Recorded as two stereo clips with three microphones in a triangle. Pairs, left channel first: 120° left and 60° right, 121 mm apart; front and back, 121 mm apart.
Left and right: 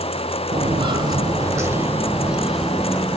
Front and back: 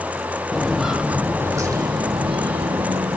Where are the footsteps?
85° right, 2.5 m; by 3.2 s 155° right, 3 m.